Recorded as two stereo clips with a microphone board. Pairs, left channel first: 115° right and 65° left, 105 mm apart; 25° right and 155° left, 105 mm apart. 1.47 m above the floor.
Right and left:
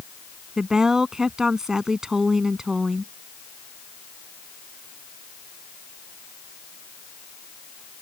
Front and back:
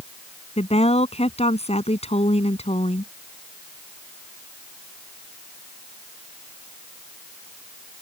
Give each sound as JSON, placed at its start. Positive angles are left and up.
{"t": 0.6, "sound": "a woman speaking", "azimuth_deg": -15}